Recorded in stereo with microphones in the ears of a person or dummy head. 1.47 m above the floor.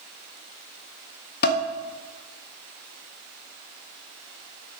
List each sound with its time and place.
1.4 s dishes clattering: 50° left (ahead or behind), 0.8 m